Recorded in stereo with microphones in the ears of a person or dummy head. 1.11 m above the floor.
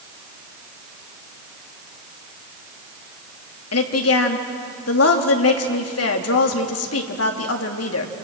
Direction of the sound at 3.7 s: 75° left (ahead or behind).